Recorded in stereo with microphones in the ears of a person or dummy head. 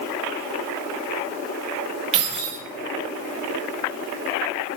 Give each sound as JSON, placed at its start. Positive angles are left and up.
{"t": 2.1, "sound": "keys jangling", "side_deg": -35, "distance_m": 1.2}